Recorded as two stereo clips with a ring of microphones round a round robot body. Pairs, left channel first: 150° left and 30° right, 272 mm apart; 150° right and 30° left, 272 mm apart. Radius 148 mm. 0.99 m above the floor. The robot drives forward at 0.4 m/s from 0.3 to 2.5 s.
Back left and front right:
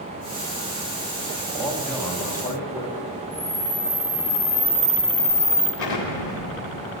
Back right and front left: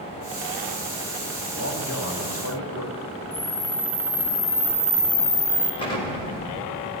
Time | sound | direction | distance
1.5 | a man speaking | 120° right | 2 m
3.3 | a camera shutter | 140° right | 5 m
5.8 | an explosion | 140° left | 1.7 m